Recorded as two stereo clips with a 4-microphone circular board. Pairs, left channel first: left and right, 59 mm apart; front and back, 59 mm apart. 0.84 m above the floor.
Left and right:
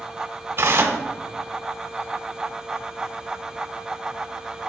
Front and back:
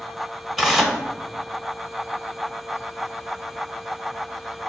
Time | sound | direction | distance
0.6 | tearing paper | 95° right | 0.8 m